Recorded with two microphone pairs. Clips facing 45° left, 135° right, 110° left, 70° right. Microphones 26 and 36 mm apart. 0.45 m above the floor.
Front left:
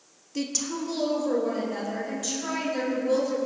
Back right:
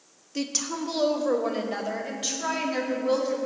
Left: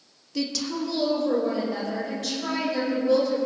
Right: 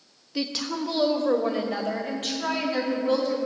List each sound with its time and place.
0.3 s a woman speaking: 65° right, 0.7 m; by 3.4 s 90° right, 3 m